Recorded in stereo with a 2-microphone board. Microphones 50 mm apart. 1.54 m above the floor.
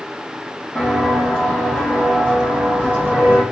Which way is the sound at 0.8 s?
30° left (ahead or behind).